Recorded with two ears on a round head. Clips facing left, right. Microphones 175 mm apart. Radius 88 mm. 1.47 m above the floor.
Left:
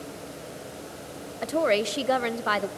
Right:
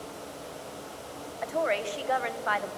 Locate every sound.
1.4 s a woman speaking: 50° left (ahead or behind), 0.6 m